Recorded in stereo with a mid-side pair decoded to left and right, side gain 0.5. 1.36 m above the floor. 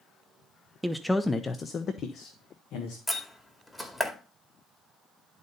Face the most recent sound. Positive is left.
turn(degrees=15)